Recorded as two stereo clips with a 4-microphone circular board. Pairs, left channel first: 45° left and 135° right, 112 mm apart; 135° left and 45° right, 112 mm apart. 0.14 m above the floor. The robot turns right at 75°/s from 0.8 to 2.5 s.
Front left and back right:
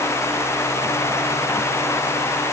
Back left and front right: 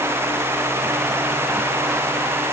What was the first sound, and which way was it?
Only background noise.